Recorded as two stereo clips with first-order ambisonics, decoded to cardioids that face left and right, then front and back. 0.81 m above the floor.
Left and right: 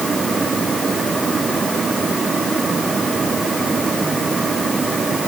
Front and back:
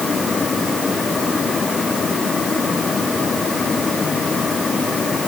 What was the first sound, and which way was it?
Only background noise.